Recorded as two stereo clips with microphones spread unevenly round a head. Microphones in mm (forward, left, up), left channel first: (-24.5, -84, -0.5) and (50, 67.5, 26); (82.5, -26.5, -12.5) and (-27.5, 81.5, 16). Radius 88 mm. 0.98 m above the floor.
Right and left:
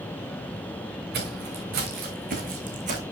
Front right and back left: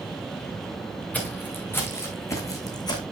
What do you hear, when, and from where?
1.1 s footsteps: 40° left, 4.5 m; by 3.0 s 20° left, 3.5 m